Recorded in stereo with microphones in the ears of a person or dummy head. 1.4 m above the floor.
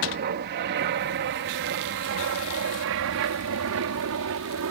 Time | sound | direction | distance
0.0 | an aircraft | 50° right (ahead or behind) | ?